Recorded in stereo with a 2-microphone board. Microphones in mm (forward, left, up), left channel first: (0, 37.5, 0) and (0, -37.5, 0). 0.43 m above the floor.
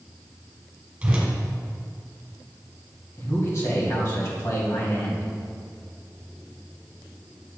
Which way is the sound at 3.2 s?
45° left (ahead or behind).